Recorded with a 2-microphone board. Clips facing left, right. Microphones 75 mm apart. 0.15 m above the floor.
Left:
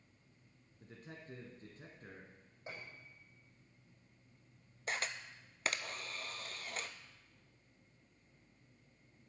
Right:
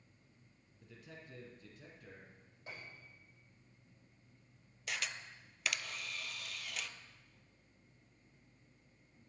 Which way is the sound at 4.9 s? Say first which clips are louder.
Left 2 dB; 40° left (ahead or behind).